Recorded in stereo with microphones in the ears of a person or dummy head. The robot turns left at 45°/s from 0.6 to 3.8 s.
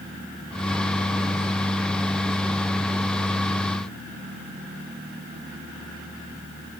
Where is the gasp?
I don't hear a gasp.